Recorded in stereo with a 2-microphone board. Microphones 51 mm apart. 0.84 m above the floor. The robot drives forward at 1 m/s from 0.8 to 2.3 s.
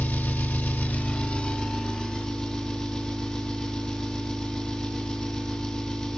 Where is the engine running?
35° left (ahead or behind), 0.8 m; by 6.2 s 15° left (ahead or behind), 2 m.